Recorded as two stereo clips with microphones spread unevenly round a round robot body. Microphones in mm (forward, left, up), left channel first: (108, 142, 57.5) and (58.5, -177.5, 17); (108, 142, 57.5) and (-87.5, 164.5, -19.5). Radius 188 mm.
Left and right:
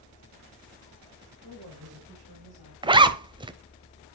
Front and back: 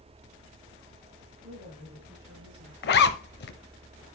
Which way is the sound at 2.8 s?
20° right.